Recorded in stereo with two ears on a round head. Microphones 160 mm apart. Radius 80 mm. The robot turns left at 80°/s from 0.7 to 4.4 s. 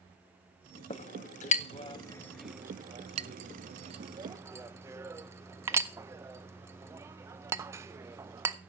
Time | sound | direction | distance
0.9 | a clink | 35° left (ahead or behind) | 0.5 m